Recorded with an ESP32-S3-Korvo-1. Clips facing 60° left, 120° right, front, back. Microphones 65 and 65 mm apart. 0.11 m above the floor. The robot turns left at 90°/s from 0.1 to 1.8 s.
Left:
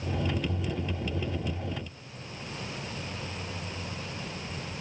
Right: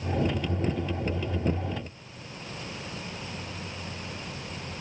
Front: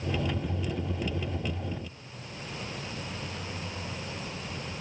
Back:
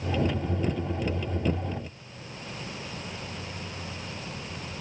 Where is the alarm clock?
I don't hear an alarm clock.